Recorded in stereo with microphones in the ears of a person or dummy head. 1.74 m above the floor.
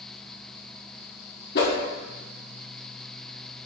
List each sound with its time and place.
1.6 s a whoosh: 60° left (ahead or behind), 1.2 m